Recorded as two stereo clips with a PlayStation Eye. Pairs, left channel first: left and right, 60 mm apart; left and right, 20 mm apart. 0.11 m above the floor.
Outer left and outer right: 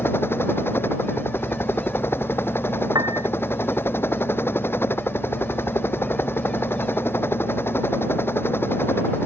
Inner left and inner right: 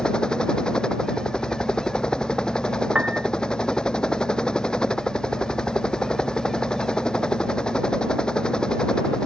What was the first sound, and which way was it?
A helicopter, 40° left (ahead or behind).